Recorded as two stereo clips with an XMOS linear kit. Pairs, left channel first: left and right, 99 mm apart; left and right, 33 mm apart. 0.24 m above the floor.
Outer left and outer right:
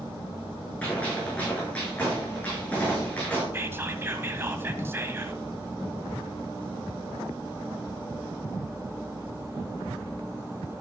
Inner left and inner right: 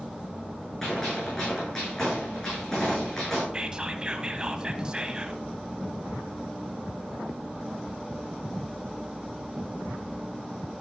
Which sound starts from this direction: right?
Whispering, at 3.5 s.